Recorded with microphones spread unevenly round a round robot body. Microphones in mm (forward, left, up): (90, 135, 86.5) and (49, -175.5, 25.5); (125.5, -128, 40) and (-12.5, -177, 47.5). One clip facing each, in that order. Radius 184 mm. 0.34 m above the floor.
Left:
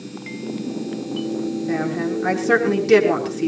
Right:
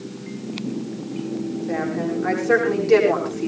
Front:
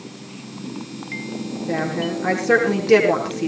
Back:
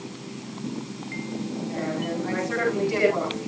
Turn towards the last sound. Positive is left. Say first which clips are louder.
# left 1 dB, front 7 dB
turn(degrees=40)